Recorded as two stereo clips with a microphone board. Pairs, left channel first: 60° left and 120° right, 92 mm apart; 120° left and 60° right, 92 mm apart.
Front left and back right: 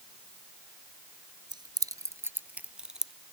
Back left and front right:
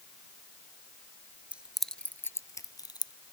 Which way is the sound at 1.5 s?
135° right.